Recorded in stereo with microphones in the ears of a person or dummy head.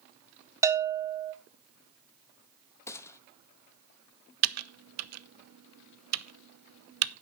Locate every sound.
0.6 s a bell: 20° right (ahead or behind), 0.6 m
2.9 s a gunshot: 15° left (ahead or behind), 0.8 m
4.4 s typing on a keyboard: 80° right, 0.7 m